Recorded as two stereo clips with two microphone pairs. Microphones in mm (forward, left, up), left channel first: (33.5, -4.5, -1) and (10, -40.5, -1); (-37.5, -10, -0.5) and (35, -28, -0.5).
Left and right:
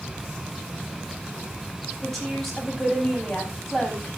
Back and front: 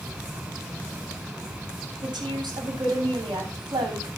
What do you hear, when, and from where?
2.0 s a woman speaking: 30° right, 9 m